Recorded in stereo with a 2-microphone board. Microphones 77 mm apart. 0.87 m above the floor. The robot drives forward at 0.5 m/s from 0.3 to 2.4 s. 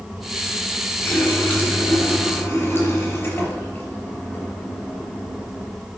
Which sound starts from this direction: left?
A running tap, at 1.0 s.